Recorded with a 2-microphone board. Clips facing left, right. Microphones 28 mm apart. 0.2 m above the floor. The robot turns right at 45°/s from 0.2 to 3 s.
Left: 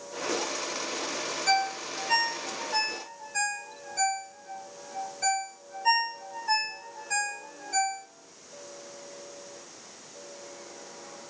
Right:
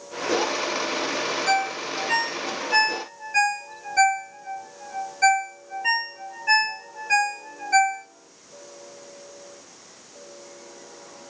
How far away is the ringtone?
About 1.3 m.